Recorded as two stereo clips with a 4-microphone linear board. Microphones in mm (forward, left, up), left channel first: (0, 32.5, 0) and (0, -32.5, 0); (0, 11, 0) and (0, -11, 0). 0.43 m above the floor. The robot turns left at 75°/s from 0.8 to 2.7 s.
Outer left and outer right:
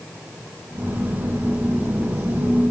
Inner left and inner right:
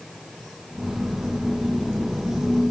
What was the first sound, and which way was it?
Only background noise.